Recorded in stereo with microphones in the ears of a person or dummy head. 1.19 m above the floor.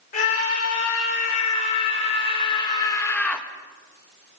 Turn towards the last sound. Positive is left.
turn(degrees=0)  # may be behind; listen again after turning